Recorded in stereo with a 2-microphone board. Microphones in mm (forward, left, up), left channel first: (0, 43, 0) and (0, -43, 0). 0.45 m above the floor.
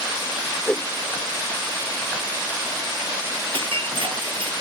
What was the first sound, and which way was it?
A whoosh, 15° left (ahead or behind).